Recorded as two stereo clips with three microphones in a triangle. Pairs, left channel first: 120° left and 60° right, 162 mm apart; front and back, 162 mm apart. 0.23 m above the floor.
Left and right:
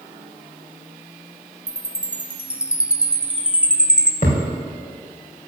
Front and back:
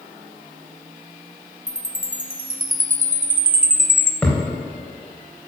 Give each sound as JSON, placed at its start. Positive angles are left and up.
{"t": 1.7, "sound": "a chime", "azimuth_deg": -140, "distance_m": 0.6}
{"t": 4.2, "sound": "a thud", "azimuth_deg": 85, "distance_m": 4.0}